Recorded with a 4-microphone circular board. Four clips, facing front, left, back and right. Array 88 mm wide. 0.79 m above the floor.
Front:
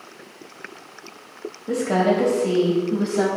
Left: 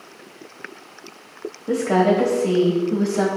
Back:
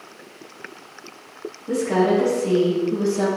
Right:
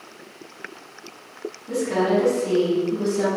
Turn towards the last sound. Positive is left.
turn(degrees=55)